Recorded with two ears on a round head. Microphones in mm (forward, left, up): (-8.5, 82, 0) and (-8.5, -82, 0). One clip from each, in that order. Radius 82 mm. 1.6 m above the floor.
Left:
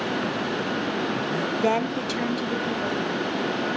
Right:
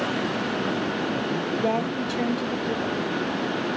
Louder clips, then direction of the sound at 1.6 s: Left 3 dB; 85° left.